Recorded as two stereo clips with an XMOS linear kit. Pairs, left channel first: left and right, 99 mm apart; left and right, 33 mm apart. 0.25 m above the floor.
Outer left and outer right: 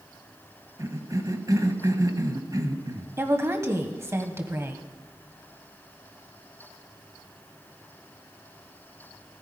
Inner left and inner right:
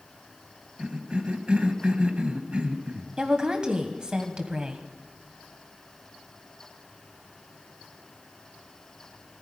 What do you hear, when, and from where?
0.8 s a cough: 40° right (ahead or behind), 1.2 m
3.2 s a woman speaking: 25° right (ahead or behind), 1.1 m